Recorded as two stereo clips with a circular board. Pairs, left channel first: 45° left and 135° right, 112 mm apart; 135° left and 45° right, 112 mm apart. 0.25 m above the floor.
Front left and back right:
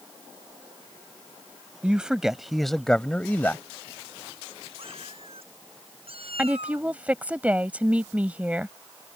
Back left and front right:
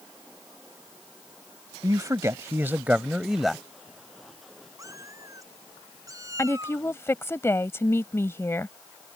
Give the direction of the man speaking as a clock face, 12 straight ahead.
2 o'clock.